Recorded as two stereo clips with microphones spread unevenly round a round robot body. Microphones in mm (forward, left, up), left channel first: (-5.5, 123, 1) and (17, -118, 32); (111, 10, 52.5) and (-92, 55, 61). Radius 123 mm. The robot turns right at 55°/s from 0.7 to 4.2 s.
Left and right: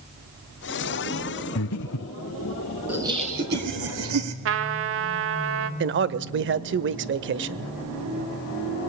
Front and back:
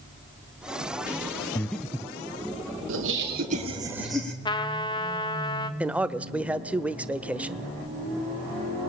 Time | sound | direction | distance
1.6 | breathing | 65° left | 1.3 m
2.9 | laughter | 170° right | 4 m
4.5 | a trumpet | 70° right | 1.7 m
5.8 | a man speaking | 110° right | 1.2 m